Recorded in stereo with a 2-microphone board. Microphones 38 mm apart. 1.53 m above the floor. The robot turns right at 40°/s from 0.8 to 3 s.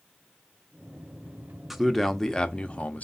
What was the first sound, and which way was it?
A man speaking, 5° right.